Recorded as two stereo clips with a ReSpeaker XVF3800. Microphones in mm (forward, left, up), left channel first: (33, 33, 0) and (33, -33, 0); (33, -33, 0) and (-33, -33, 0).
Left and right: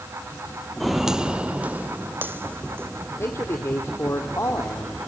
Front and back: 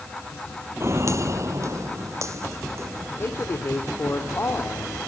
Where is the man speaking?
45° left, 2 m.